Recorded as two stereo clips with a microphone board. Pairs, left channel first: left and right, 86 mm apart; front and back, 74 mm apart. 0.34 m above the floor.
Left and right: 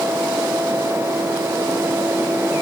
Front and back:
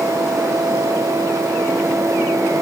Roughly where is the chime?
No chime in this recording.